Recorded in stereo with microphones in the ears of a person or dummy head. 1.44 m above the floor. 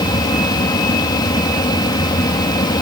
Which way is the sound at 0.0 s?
20° left (ahead or behind).